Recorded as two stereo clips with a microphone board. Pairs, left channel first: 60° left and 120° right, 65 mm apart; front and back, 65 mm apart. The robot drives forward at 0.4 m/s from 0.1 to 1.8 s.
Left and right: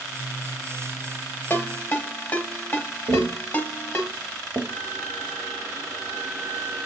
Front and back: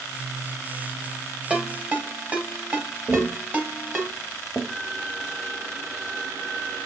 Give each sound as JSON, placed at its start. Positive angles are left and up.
{"t": 1.5, "sound": "a ringtone", "azimuth_deg": 110, "distance_m": 1.2}
{"t": 3.1, "sound": "tapping", "azimuth_deg": -120, "distance_m": 1.7}
{"t": 4.7, "sound": "a violin", "azimuth_deg": 165, "distance_m": 3.5}